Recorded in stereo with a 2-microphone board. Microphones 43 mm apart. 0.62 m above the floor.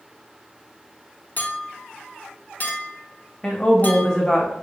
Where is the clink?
40° left (ahead or behind), 0.6 m.